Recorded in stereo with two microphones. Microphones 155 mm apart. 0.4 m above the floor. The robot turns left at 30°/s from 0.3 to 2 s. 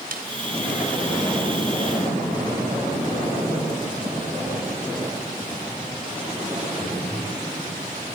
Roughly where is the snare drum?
Right.